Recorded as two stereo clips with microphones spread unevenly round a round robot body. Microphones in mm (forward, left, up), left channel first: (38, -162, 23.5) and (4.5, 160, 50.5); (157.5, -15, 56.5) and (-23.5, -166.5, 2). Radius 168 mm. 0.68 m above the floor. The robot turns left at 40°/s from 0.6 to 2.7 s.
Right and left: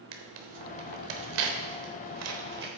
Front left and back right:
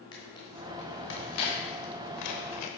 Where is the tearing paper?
115° left, 1.1 m; by 2.7 s 35° left, 1.1 m.